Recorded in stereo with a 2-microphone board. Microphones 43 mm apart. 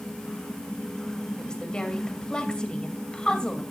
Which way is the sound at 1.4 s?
20° left (ahead or behind).